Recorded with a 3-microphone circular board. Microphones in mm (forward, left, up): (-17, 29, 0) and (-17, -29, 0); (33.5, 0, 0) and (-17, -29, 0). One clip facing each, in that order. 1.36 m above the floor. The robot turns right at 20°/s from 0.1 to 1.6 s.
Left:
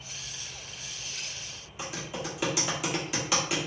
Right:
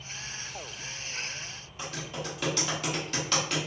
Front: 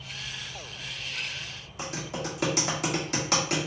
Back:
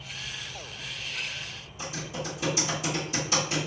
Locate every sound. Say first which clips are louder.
1.8 s typing on a keyboard: left 1 dB, front 1 dB; 10° left, 1.4 m